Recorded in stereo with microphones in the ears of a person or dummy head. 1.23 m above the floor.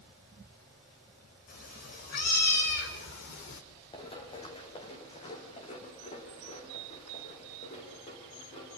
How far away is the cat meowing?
About 3.5 m.